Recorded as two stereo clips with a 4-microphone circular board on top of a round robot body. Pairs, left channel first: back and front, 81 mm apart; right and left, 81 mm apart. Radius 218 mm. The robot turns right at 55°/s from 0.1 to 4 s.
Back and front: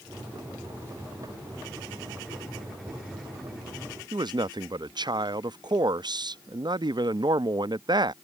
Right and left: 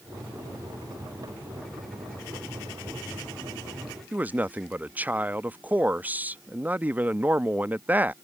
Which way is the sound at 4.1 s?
20° left.